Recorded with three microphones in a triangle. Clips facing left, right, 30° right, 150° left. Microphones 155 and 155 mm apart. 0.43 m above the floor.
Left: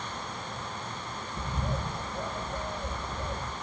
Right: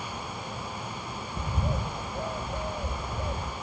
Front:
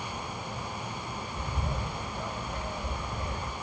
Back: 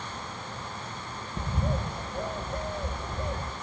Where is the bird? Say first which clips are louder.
Right 2 dB, back 6 dB; 160° right, 0.7 m.